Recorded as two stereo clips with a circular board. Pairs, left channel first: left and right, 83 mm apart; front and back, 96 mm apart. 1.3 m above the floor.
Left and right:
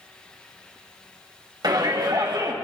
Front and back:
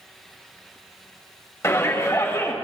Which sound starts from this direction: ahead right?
A shout, at 1.6 s.